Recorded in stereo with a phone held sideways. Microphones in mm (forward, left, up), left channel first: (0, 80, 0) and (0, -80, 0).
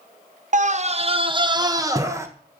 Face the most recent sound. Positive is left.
turn(degrees=-15)  # may be behind; listen again after turning